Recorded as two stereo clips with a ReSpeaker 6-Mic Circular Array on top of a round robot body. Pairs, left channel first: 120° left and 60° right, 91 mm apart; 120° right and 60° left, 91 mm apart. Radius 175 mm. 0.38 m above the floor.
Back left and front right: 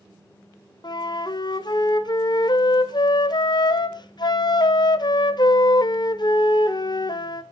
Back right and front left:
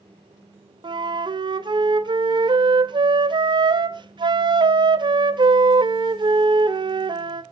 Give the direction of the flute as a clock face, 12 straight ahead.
9 o'clock.